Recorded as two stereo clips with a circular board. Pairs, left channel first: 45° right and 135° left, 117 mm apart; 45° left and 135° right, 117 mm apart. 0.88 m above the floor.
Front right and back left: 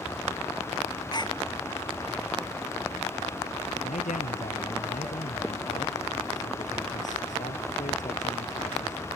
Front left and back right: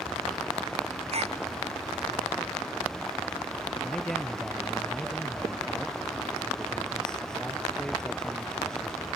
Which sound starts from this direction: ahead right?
A man speaking, at 3.8 s.